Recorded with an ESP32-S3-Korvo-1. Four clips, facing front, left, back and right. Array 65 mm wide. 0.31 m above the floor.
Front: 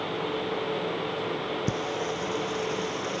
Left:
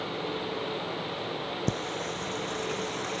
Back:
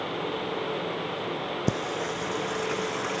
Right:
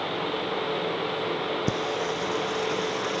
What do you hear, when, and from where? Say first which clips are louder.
1.7 s singing: right 5 dB, even; 160° right